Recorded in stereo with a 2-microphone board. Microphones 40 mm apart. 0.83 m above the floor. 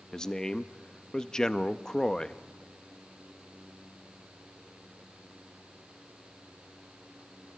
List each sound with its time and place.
0.1 s a man speaking: 20° left (ahead or behind), 0.7 m